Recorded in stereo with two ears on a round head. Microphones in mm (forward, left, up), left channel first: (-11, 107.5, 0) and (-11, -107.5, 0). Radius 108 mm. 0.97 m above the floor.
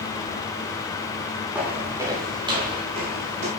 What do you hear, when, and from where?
1.6 s footsteps: 5° right (ahead or behind), 5 m; by 3.5 s 35° right (ahead or behind), 6 m